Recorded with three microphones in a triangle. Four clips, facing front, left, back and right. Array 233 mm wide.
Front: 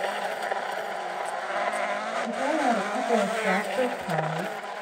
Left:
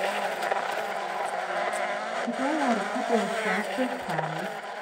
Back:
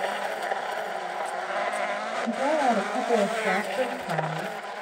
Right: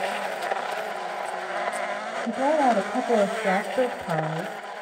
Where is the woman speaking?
115° right, 3.5 m; by 4.6 s 65° right, 2.5 m.